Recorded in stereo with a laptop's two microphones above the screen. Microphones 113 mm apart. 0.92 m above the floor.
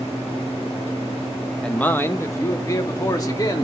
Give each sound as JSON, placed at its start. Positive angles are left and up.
{"t": 1.6, "sound": "a man speaking", "side_deg": 5, "distance_m": 0.5}